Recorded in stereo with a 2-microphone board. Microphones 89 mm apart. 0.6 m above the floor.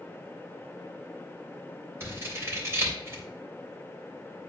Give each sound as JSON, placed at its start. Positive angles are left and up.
{"t": 2.0, "sound": "scissors", "side_deg": -30, "distance_m": 2.5}